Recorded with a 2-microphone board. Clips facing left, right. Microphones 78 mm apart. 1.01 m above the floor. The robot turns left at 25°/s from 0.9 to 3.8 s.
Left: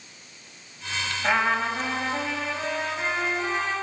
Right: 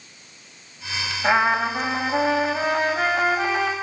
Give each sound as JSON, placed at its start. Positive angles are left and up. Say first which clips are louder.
{"t": 1.2, "sound": "a trumpet", "louder": "right 4 dB", "azimuth_deg": -25, "distance_m": 5.5}